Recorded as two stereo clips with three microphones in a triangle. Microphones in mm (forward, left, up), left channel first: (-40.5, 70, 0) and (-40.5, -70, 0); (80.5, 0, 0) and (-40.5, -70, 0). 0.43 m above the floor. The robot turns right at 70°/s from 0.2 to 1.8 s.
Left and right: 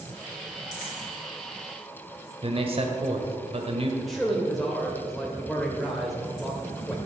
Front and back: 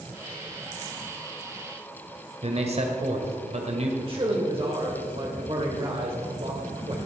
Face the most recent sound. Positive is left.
turn(degrees=180)